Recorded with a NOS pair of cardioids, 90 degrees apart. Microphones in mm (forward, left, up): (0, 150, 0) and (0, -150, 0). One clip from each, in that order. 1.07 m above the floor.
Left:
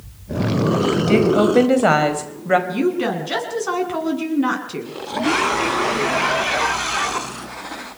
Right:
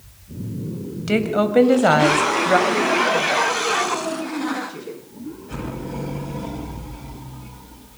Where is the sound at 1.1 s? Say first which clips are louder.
Left 2 dB; 5° left, 5 m; by 2.6 s 10° left, 4.5 m.